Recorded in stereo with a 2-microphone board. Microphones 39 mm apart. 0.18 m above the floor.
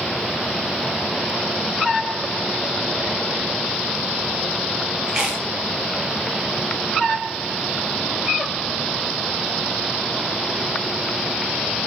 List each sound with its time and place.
5.1 s chewing: 20° right (ahead or behind), 3.5 m